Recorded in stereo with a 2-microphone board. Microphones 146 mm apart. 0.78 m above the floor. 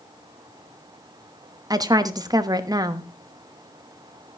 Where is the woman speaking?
25° right (ahead or behind), 1.1 m.